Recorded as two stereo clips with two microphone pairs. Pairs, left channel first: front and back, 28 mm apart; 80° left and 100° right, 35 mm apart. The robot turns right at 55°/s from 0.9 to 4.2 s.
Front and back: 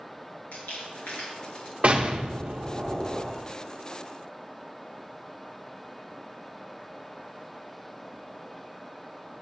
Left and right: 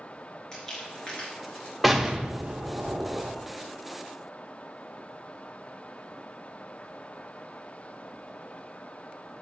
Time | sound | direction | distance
0.5 | crumpling | 5° left | 3.5 m
1.8 | an explosion | 170° left | 0.8 m